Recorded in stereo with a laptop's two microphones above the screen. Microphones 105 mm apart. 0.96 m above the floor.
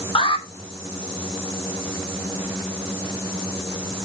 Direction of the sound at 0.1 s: 50° left (ahead or behind).